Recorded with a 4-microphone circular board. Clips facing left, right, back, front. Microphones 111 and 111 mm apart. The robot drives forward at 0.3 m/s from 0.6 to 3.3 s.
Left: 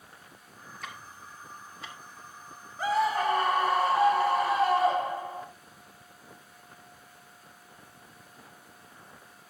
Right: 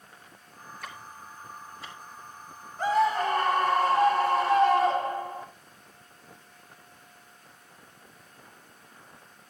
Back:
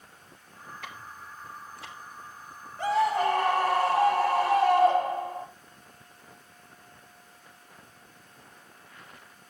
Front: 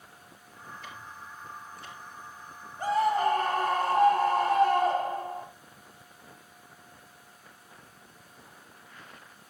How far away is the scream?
About 3.5 m.